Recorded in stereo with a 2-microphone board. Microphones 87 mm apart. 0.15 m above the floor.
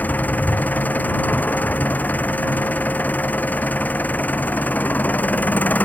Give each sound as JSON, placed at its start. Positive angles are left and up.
{"t": 0.0, "sound": "an engine running", "side_deg": 20}